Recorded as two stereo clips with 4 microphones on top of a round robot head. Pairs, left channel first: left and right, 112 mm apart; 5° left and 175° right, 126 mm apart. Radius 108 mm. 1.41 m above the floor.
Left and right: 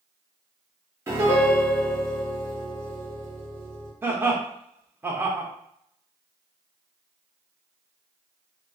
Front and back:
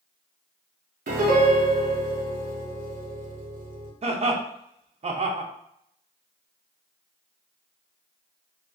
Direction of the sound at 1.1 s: 160° right.